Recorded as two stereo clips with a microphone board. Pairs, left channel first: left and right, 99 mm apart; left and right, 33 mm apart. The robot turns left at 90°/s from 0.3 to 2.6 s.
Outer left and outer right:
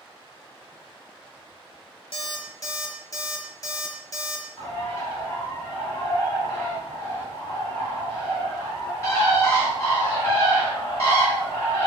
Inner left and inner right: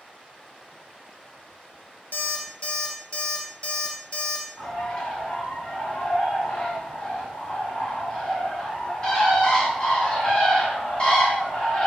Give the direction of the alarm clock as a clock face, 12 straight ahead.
9 o'clock.